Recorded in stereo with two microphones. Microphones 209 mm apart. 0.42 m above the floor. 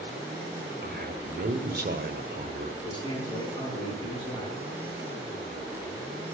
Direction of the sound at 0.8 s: 45° right (ahead or behind).